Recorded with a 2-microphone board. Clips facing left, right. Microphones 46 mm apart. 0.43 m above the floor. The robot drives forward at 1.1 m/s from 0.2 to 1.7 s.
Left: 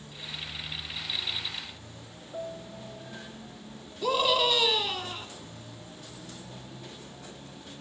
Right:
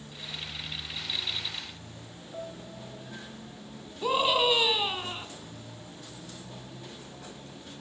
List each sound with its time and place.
2.3 s a piano: centre (ahead or behind), 2.5 m
4.0 s a scream: 20° right (ahead or behind), 4 m